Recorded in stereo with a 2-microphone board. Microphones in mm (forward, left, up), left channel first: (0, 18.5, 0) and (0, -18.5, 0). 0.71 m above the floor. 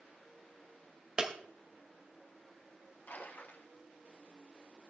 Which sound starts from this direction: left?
A splash, at 3.1 s.